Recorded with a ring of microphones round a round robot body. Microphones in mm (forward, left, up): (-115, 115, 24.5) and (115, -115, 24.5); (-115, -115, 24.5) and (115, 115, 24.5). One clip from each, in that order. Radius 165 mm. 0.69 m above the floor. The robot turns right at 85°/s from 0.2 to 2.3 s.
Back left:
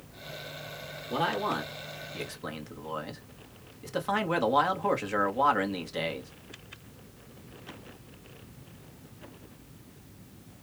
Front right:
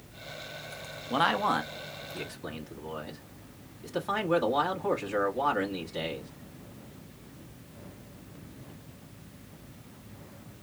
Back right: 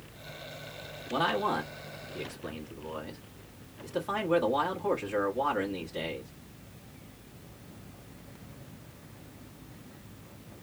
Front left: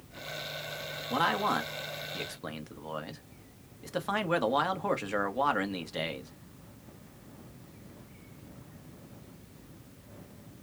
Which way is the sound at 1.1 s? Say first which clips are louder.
Front right 3 dB, even; 25° right.